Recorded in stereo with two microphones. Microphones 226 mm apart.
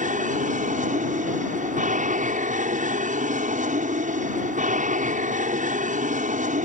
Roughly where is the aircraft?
Right.